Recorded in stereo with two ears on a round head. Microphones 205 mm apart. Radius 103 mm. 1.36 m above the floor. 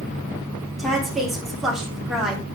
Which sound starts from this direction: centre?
A woman speaking, at 0.8 s.